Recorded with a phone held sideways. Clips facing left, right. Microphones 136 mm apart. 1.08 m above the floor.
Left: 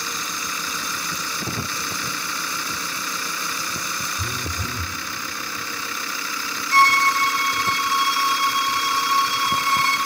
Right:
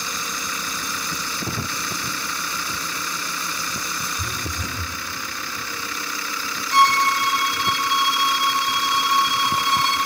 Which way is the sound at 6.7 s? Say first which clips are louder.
Right 1 dB; 20° right (ahead or behind).